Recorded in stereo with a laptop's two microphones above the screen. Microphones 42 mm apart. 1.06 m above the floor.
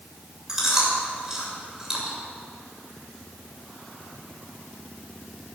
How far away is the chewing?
About 2.5 m.